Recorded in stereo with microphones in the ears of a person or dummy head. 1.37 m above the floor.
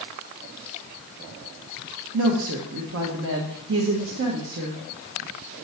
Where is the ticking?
No ticking in this recording.